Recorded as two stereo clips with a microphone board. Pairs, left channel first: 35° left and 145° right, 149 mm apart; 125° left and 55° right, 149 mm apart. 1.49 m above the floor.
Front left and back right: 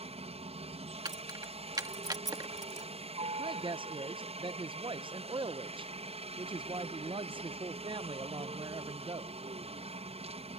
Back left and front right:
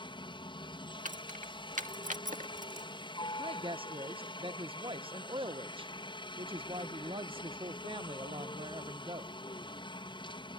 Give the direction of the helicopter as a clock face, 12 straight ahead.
6 o'clock.